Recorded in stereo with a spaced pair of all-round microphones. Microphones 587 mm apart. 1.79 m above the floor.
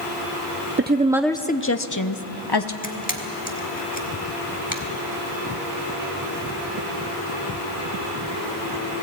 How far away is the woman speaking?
About 0.8 m.